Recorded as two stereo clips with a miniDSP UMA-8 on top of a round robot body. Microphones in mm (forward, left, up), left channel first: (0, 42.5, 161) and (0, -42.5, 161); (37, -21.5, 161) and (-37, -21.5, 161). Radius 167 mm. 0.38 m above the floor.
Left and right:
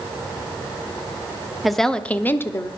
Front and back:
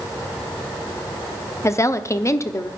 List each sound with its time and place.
1.6 s a woman speaking: 5° right, 1.0 m; by 2.7 s 40° left, 1.2 m